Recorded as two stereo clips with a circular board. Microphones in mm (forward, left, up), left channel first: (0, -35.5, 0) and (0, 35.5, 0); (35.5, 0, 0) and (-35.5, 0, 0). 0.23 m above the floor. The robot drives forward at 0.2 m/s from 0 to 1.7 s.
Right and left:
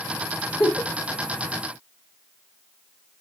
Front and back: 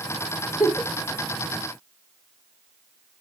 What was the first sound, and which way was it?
A giggle, 85° right.